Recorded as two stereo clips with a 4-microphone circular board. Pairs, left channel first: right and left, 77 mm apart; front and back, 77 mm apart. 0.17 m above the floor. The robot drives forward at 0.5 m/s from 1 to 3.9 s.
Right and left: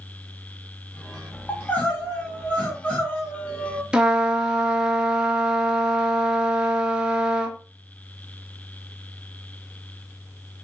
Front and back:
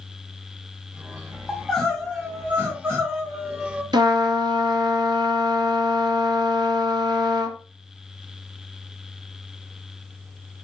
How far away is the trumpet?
About 0.5 m.